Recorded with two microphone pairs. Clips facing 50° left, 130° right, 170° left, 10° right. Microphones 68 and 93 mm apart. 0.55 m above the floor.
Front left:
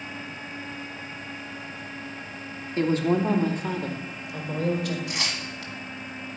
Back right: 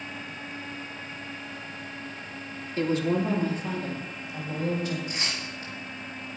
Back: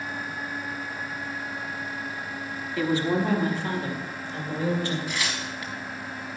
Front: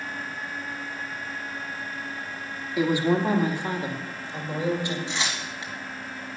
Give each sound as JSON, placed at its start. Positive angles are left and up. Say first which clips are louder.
{"t": 2.8, "sound": "a woman speaking", "louder": "front left 3 dB, front 2 dB", "azimuth_deg": 55, "distance_m": 1.1}
{"t": 5.1, "sound": "tearing paper", "louder": "front left 2 dB, even", "azimuth_deg": 55, "distance_m": 1.7}